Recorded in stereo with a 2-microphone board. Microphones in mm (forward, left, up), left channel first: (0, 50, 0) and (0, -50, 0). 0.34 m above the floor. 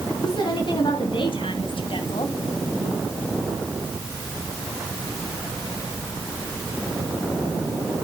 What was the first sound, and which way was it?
A woman speaking, 50° left (ahead or behind).